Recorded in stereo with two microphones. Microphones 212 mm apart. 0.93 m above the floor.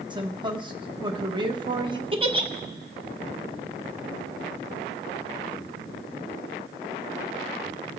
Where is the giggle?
25° right (ahead or behind), 1.1 m.